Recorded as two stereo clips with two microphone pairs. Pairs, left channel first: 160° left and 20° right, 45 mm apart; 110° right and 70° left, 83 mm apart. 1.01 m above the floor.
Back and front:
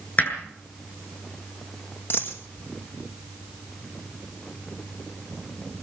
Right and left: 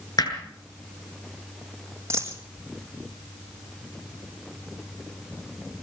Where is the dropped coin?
125° left, 5 m.